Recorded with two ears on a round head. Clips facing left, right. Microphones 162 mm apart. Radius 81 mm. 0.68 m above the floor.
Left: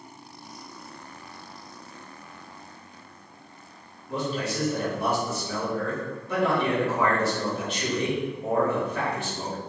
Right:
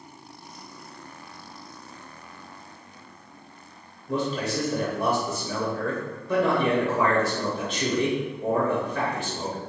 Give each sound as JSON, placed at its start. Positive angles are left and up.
{"t": 4.1, "sound": "a man speaking", "side_deg": -75, "distance_m": 3.0}